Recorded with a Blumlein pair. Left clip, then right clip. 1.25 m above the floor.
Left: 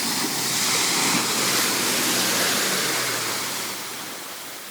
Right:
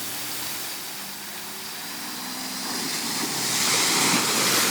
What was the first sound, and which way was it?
Only background noise.